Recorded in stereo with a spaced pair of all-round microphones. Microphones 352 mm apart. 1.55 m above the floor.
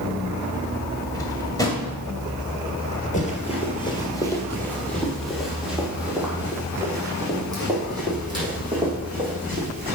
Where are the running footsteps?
20° left (ahead or behind), 2 m; by 9.9 s 15° right (ahead or behind), 6 m.